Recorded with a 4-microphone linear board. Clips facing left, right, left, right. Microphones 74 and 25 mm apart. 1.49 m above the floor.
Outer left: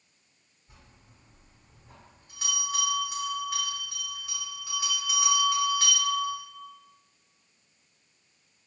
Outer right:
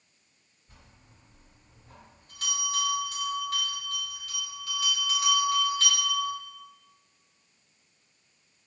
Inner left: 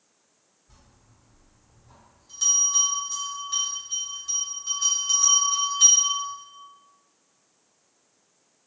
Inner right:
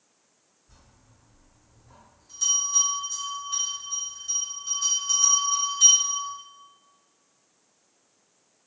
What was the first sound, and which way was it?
A bell, 15° left (ahead or behind).